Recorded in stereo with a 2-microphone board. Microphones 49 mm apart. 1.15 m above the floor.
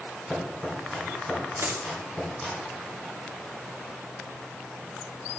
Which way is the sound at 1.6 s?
60° right (ahead or behind).